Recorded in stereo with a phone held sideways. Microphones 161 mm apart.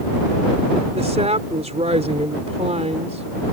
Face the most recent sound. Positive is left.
turn(degrees=-45)  # may be behind; listen again after turning